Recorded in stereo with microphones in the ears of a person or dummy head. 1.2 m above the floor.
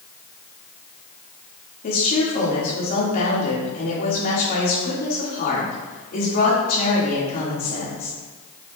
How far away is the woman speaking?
About 2.5 m.